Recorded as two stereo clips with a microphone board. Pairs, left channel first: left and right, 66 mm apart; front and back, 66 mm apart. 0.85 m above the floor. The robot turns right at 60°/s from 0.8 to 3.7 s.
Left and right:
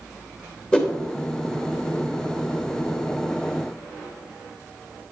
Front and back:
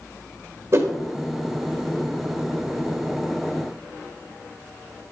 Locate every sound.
0.7 s a whoosh: 160° left, 1.3 m; by 0.9 s 165° left, 1.3 m